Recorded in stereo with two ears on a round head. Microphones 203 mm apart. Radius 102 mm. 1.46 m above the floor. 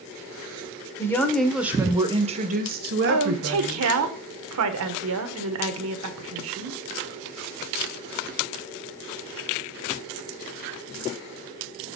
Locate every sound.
1.0 s a woman speaking: 15° left (ahead or behind), 1.0 m; by 3.9 s 65° right (ahead or behind), 1.2 m
3.1 s a woman speaking: 70° right (ahead or behind), 1.0 m